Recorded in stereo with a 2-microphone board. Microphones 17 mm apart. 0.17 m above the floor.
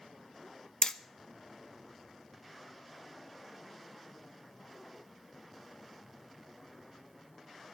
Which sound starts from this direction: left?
Hammering, at 0.8 s.